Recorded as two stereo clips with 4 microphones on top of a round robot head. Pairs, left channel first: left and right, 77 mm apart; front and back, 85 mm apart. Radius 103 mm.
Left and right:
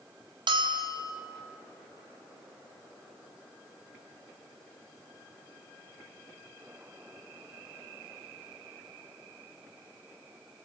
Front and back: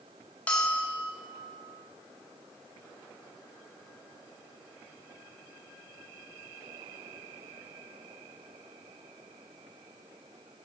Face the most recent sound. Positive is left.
turn(degrees=-75)